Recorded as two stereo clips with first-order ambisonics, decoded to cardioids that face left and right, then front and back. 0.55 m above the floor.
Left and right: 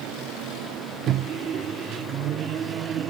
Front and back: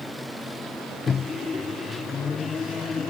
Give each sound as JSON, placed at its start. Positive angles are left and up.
{"t": 1.1, "sound": "a microwave", "azimuth_deg": -65}